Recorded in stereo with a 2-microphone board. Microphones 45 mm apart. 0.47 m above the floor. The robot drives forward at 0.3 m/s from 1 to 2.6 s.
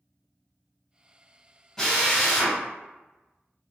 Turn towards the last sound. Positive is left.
turn(degrees=10)  # may be behind; listen again after turning